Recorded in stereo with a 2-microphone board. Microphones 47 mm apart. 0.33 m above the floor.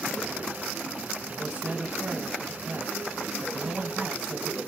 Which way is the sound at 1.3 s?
25° right (ahead or behind).